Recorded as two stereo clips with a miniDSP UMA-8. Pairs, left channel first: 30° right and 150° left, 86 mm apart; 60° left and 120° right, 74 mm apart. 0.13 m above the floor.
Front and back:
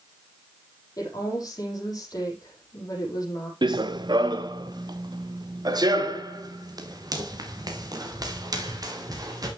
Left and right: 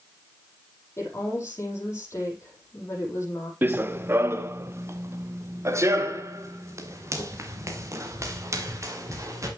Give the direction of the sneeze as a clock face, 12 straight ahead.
No sneeze in this recording.